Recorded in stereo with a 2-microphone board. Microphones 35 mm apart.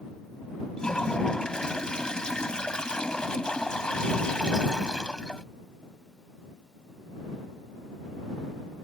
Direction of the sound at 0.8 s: 20° left (ahead or behind).